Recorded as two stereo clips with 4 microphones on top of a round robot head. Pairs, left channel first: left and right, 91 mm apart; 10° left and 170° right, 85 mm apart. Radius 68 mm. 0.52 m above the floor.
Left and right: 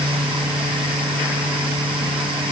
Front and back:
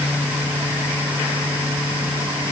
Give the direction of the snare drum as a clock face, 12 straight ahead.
No snare drum in this recording.